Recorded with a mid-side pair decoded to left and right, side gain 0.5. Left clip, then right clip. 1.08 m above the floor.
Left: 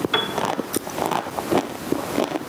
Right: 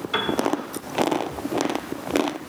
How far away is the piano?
About 1.3 m.